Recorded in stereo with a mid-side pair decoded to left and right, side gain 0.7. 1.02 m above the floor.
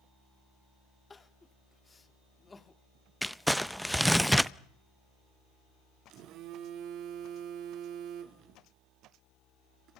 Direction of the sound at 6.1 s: 55° right.